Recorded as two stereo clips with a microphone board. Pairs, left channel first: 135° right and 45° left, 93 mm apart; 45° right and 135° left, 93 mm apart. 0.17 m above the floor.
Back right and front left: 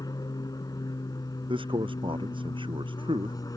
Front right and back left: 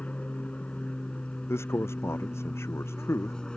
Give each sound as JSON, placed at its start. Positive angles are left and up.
{"t": 0.0, "sound": "an aircraft", "azimuth_deg": -115}
{"t": 1.5, "sound": "a man speaking", "azimuth_deg": 20}